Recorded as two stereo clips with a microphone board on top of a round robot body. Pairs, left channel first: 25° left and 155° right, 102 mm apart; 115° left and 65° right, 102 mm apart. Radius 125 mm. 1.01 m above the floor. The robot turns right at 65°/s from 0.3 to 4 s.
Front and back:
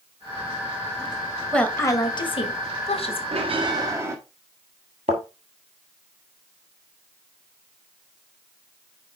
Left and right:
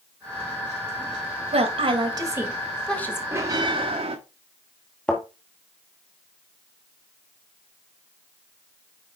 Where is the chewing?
I don't hear chewing.